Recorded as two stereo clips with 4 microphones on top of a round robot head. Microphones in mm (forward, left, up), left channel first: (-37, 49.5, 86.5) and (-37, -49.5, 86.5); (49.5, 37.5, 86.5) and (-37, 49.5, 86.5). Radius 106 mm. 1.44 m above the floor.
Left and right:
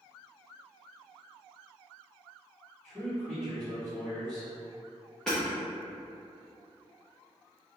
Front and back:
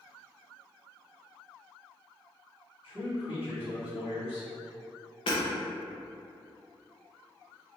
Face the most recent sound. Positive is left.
turn(degrees=5)